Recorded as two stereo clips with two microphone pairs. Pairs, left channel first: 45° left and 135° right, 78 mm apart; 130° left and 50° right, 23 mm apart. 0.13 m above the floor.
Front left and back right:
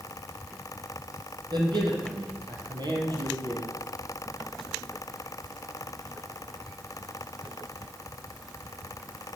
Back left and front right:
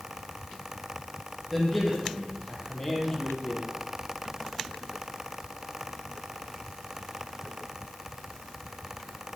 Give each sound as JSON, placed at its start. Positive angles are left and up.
{"t": 1.5, "sound": "a man speaking", "azimuth_deg": -145, "distance_m": 4.5}